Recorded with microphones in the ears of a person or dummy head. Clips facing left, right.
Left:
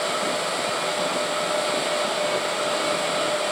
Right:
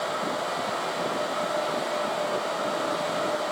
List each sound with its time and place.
Only background noise.